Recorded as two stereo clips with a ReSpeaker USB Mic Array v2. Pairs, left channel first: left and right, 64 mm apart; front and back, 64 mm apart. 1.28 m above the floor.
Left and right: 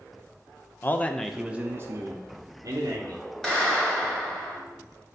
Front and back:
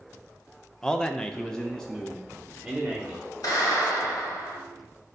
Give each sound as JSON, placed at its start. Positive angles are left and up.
{"t": 0.8, "sound": "a man speaking", "azimuth_deg": 75, "distance_m": 0.5}
{"t": 3.4, "sound": "a clap", "azimuth_deg": 10, "distance_m": 2.5}